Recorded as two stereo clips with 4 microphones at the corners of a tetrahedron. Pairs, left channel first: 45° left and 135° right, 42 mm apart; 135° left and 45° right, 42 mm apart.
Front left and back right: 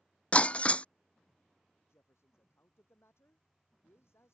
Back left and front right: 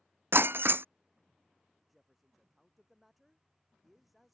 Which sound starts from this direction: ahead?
Breaking glass, at 0.3 s.